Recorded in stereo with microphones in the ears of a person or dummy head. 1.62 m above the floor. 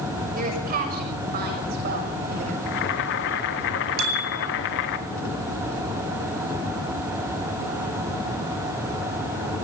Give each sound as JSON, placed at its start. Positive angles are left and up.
{"t": 0.3, "sound": "a woman speaking", "side_deg": -50, "distance_m": 6.0}
{"t": 2.7, "sound": "boiling", "side_deg": 70, "distance_m": 1.9}
{"t": 4.0, "sound": "a bicycle bell", "side_deg": -70, "distance_m": 4.5}